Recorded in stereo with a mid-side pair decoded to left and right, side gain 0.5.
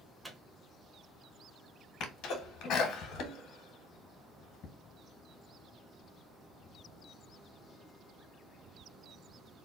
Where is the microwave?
10° right, 0.9 m.